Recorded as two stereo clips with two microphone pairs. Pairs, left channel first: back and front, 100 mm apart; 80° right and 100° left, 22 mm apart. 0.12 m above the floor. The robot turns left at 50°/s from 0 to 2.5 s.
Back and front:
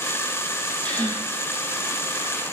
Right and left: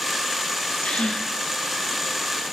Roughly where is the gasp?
Right.